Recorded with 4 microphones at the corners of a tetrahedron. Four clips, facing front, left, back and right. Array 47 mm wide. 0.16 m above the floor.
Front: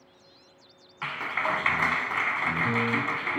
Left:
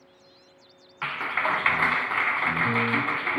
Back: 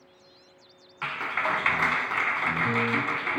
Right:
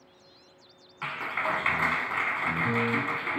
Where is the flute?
No flute in this recording.